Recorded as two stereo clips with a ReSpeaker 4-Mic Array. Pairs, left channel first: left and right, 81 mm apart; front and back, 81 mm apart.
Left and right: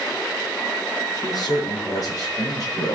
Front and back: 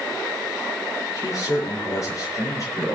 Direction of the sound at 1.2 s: 50° left.